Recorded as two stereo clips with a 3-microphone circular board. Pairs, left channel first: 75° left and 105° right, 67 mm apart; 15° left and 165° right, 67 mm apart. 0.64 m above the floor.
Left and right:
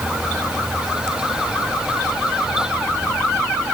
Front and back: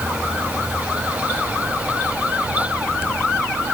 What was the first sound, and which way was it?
Only background noise.